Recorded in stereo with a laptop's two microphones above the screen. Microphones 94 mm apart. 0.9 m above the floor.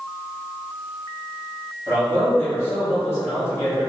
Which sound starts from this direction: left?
A man speaking, at 1.9 s.